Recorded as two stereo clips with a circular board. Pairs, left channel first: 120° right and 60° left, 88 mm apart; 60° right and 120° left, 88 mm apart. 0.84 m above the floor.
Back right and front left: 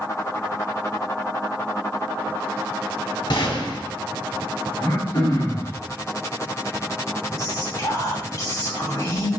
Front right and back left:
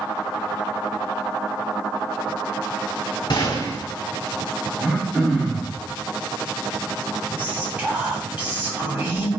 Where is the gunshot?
95° right, 1.9 m.